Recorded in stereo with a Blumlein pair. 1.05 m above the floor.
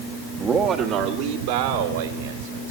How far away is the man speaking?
About 1.7 m.